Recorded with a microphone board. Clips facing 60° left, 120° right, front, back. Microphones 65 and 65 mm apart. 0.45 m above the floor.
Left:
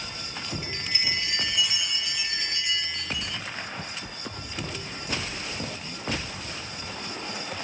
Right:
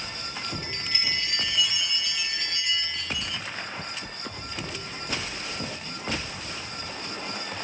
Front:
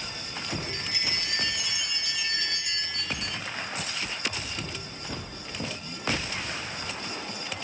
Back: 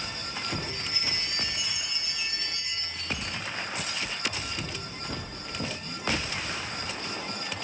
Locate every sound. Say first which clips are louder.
0.6 s a chime: left 2 dB, front 1 dB; 20° right, 1.0 m